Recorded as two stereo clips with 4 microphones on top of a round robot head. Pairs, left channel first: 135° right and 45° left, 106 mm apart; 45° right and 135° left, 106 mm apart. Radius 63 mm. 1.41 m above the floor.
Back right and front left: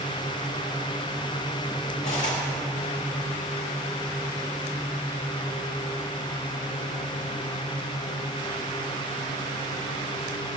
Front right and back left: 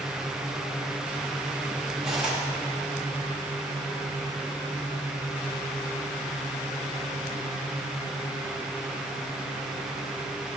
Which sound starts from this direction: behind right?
Cutlery clinking, at 2.0 s.